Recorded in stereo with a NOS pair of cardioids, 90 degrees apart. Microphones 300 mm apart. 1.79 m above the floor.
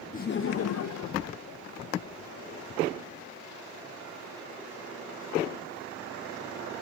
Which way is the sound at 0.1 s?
25° left.